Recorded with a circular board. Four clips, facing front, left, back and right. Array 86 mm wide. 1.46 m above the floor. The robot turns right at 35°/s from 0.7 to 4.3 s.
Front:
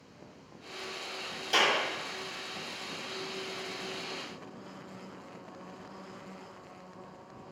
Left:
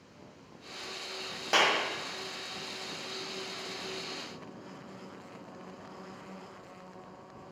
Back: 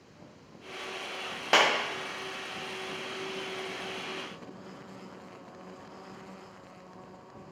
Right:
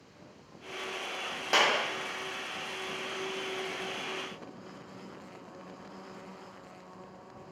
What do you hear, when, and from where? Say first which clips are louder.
1.5 s a clap: even, back 3 dB; straight behind, 0.9 m; by 1.8 s 170° right, 0.9 m